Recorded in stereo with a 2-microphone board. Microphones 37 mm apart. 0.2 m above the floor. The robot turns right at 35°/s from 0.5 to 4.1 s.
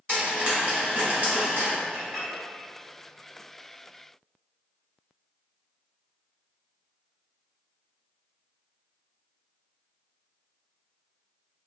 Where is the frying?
35° right (ahead or behind), 1.2 m; by 1.7 s 50° right (ahead or behind), 1.2 m.